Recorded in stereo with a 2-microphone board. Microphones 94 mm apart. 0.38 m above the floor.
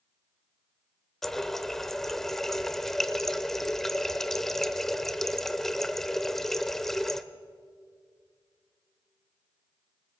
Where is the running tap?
5° left (ahead or behind), 0.6 m.